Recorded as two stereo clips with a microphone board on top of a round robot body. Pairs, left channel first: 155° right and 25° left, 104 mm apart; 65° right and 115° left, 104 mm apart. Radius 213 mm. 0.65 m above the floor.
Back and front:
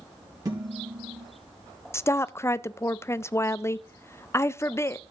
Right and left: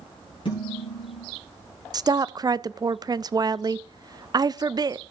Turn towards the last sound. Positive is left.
turn(degrees=145)